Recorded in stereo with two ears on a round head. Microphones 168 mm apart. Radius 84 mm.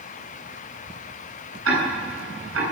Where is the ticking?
85° right, 9 m.